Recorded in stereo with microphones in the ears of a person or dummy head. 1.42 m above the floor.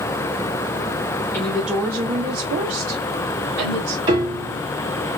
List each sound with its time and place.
1.3 s a woman speaking: 15° left (ahead or behind), 0.6 m; by 4.0 s 75° right (ahead or behind), 1.4 m
4.1 s a piano: 25° right (ahead or behind), 1.6 m